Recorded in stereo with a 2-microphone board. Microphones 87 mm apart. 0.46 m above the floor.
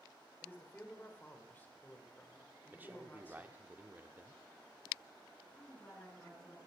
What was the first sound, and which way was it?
A man speaking, 20° left (ahead or behind).